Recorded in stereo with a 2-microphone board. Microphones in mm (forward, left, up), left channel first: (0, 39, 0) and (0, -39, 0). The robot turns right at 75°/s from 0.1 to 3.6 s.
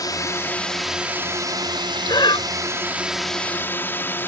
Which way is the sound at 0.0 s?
125° left.